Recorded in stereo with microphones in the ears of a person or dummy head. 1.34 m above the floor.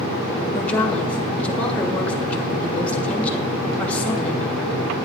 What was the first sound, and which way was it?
A woman speaking, 10° left (ahead or behind).